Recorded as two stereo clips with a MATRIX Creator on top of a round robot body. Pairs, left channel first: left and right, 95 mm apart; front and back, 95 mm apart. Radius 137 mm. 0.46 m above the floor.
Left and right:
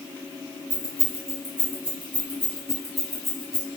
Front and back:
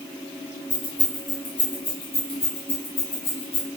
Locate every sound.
0.7 s keys jangling: 35° right, 3 m; by 3.7 s 10° left, 3 m